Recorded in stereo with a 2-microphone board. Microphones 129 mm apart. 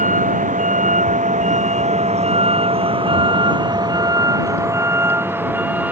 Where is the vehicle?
85° right; by 5.9 s 10° right (ahead or behind).